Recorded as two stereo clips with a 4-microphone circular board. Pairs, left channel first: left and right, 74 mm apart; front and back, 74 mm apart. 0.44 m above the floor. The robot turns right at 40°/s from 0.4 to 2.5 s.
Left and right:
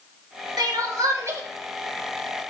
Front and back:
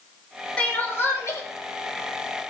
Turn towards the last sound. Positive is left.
turn(degrees=10)